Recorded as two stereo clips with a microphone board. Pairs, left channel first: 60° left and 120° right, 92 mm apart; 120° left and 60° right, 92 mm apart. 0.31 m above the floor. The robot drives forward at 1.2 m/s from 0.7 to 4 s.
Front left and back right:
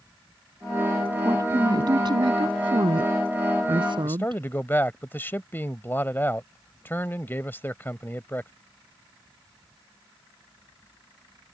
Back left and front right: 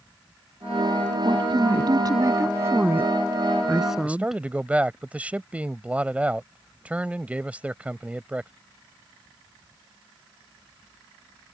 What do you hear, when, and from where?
1.2 s a woman speaking: 70° right; by 4.4 s 145° right
4.0 s a man speaking: 5° left